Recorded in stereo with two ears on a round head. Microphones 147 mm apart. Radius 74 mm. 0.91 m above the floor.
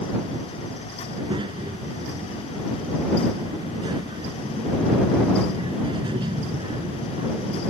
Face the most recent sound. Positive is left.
turn(degrees=-30)  # may be behind; listen again after turning